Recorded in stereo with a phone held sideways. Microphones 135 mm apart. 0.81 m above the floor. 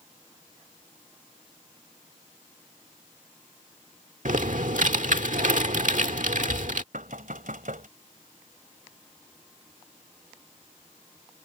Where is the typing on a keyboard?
75° right (ahead or behind).